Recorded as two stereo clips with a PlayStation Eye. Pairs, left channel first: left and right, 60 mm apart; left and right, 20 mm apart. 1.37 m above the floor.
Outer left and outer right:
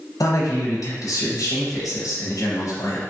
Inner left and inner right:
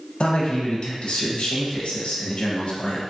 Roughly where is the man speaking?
Left.